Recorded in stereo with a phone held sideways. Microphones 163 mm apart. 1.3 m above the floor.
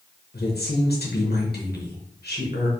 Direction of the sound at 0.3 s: 80° left.